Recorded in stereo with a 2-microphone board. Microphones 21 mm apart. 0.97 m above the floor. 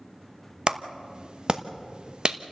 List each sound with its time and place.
0.7 s a clap: 40° right (ahead or behind), 1.0 m